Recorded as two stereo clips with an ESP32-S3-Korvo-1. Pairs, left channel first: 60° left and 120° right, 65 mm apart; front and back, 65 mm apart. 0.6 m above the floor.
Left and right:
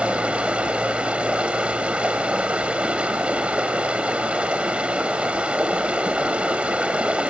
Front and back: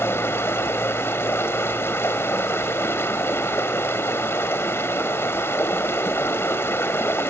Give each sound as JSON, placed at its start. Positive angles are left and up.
{"t": 0.0, "sound": "running water", "azimuth_deg": -50, "distance_m": 2.0}